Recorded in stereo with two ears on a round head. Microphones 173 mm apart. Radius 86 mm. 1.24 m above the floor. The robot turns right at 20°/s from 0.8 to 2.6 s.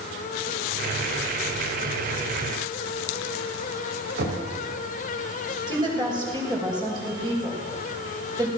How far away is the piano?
I don't hear a piano.